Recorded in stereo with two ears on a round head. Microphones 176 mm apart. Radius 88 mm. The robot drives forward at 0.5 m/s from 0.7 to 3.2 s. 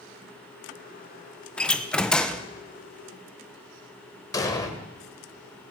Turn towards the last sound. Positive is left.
turn(degrees=20)  # may be behind; listen again after turning